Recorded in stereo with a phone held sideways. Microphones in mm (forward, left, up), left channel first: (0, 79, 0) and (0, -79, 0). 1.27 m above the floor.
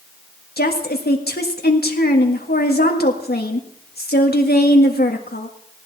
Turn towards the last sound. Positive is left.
turn(degrees=85)